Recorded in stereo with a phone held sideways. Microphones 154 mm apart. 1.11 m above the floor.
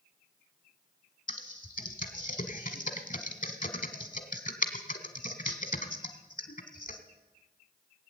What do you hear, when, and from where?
1.3 s typing on a keyboard: 65° left (ahead or behind), 1.5 m